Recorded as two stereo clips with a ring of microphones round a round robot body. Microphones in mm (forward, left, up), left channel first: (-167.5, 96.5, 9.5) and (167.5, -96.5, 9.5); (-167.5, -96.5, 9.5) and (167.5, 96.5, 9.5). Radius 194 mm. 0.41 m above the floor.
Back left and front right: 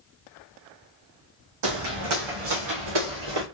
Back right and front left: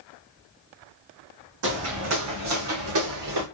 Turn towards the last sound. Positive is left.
turn(degrees=-10)